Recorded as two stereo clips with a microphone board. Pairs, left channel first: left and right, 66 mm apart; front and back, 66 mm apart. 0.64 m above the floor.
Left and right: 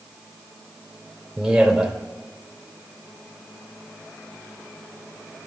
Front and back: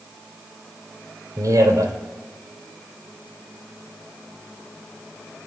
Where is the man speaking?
Straight behind, 2.5 m.